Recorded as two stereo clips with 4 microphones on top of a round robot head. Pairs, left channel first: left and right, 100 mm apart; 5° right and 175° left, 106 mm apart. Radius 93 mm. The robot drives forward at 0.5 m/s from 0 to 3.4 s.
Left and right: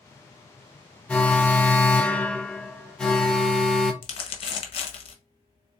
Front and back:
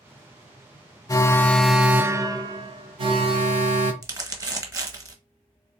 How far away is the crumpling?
About 1.0 m.